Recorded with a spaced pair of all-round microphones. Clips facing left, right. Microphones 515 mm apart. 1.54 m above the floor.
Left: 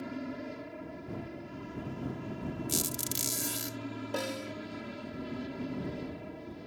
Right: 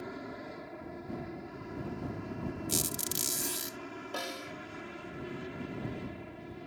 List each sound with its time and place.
0.0 s an aircraft: 45° left (ahead or behind); by 6.7 s 60° left (ahead or behind)
2.7 s a squeak: 5° left (ahead or behind)
4.1 s a snare drum: 60° left (ahead or behind)